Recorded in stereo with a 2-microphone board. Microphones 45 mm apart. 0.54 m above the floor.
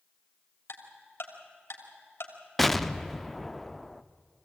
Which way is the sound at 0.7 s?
60° left (ahead or behind).